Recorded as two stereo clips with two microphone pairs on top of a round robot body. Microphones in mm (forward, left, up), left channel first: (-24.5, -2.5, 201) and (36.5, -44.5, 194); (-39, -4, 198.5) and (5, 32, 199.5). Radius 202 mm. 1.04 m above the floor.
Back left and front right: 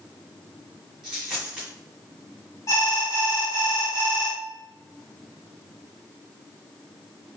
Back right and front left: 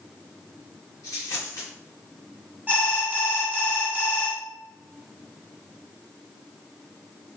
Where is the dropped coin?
115° right, 1.8 m.